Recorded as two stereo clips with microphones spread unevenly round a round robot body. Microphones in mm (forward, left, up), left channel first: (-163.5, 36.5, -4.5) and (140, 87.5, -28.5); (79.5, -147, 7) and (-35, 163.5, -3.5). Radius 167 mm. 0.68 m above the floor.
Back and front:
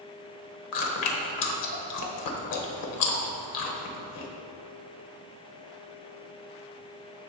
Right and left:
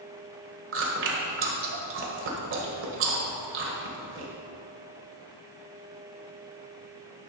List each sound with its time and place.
0.7 s chewing: 165° left, 1.5 m